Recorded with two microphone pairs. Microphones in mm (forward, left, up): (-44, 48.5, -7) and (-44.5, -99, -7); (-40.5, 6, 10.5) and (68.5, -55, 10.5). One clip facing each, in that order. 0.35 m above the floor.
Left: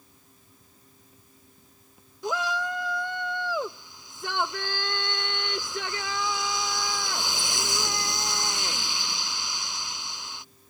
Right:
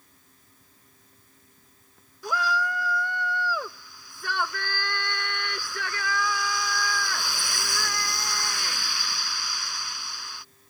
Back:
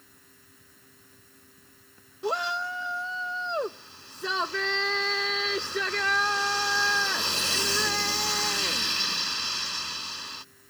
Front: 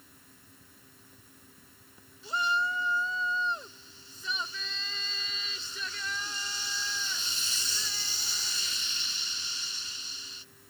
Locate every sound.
2.2 s a shout: 160° left